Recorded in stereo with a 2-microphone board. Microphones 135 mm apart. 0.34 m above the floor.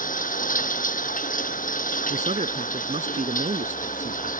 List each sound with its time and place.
0.0 s running water: 90° left
2.1 s a man speaking: 60° right (ahead or behind)